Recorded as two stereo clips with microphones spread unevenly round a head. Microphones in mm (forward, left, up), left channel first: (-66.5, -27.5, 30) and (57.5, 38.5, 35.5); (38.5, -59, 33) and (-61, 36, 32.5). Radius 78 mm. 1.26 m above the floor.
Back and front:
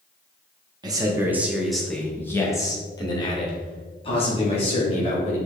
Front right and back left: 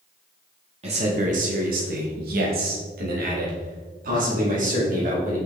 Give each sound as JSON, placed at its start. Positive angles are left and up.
{"t": 0.8, "sound": "a man speaking", "azimuth_deg": 90, "distance_m": 1.7}